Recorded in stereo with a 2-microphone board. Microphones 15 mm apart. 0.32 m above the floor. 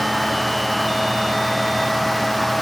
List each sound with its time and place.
Only background noise.